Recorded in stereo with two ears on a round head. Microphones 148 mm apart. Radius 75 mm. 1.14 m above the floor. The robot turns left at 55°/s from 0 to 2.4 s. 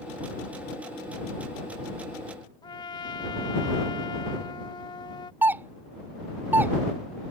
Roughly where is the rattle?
No rattle in this recording.